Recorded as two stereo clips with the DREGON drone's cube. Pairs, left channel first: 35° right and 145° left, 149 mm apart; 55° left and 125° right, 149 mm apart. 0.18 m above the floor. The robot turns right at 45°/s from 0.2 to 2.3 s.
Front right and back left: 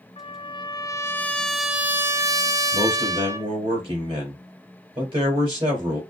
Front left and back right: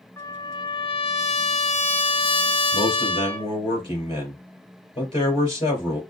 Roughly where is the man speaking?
Left.